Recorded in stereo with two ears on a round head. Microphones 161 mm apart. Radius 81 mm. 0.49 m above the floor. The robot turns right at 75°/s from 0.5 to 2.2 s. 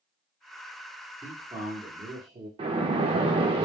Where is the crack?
I don't hear a crack.